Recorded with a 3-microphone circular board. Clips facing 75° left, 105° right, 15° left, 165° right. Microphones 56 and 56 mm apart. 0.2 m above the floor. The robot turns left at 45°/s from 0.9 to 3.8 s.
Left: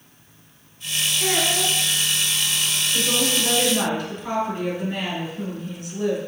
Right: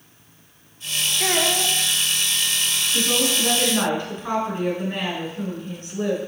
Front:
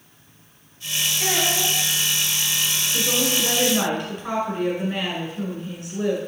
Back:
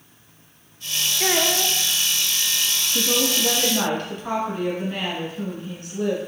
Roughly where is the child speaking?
Behind right.